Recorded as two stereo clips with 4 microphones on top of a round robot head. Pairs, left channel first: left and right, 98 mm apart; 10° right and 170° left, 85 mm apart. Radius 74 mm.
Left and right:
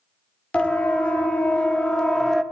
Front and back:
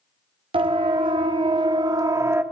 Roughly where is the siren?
Behind.